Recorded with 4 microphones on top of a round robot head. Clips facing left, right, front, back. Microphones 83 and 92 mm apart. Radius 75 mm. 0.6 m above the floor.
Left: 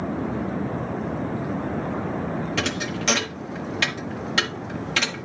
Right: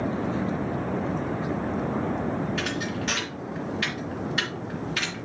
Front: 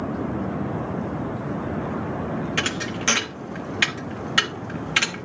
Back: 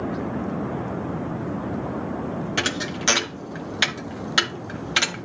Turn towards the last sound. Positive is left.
turn(degrees=110)